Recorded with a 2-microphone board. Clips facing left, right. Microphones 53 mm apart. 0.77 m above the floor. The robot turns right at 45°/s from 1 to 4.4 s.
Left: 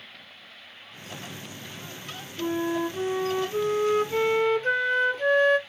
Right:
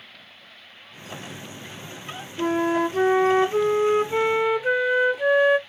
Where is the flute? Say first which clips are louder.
Right 5 dB; 100° right, 0.6 m; by 5.6 s 10° right, 0.6 m.